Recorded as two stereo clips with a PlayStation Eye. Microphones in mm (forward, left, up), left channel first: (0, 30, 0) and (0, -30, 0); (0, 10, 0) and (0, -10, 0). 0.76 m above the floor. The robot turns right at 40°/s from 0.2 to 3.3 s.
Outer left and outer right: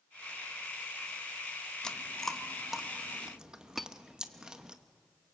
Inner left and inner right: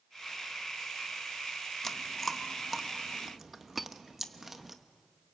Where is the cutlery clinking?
5° left (ahead or behind), 0.5 m.